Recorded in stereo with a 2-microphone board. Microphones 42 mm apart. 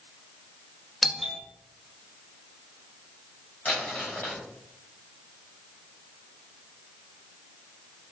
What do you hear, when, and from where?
1.0 s a doorbell: centre (ahead or behind), 0.9 m
3.6 s crumpling: 45° left (ahead or behind), 3.5 m